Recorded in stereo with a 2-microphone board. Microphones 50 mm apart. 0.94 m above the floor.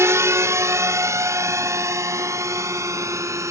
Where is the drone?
65° right (ahead or behind); by 3.5 s 85° right.